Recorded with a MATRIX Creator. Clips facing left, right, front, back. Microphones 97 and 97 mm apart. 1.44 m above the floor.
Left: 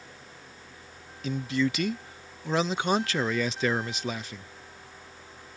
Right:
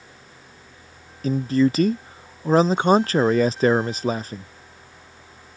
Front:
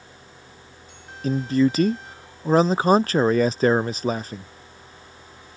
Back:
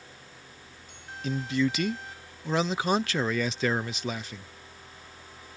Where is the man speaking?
45° right.